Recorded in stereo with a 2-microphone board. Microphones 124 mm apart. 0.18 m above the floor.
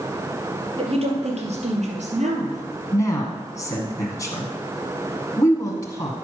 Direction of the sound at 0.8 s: 50° right (ahead or behind).